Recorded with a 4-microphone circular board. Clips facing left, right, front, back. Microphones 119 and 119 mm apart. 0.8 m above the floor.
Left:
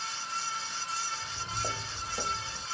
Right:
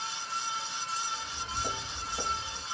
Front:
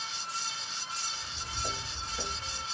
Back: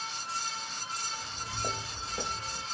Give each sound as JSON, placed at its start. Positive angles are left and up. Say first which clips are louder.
{"t": 1.1, "sound": "footsteps", "louder": "right 1 dB, back 2 dB", "azimuth_deg": 135, "distance_m": 2.0}